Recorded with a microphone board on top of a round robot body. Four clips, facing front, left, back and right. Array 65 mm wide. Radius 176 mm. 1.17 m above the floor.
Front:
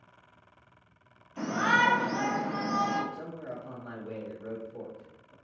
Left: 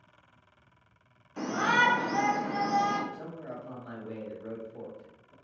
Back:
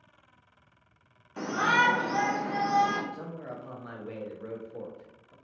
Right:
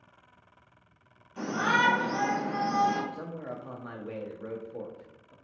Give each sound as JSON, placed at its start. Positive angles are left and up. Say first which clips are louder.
{"t": 1.4, "sound": "a shout", "louder": "even, back 1 dB", "azimuth_deg": 155, "distance_m": 1.8}
{"t": 3.1, "sound": "a man speaking", "louder": "right 2 dB, even", "azimuth_deg": -115, "distance_m": 1.2}